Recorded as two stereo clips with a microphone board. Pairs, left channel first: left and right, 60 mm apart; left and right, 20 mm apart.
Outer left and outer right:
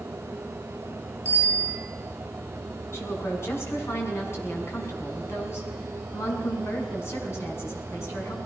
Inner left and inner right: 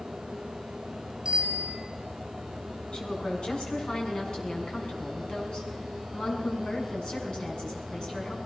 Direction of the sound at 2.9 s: 45° left (ahead or behind).